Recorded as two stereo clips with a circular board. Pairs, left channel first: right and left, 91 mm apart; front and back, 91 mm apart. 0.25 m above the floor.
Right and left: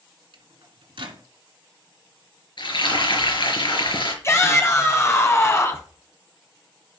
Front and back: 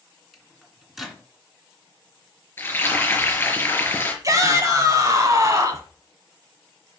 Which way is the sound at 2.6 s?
65° right.